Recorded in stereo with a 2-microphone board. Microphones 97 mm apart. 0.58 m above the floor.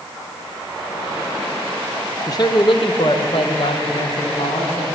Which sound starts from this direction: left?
A man speaking, at 2.3 s.